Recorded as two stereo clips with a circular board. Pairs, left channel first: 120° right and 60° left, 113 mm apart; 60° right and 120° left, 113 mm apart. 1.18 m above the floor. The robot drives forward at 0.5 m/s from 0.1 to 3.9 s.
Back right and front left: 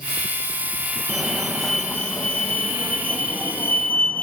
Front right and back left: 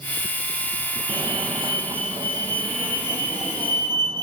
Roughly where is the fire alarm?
Behind left.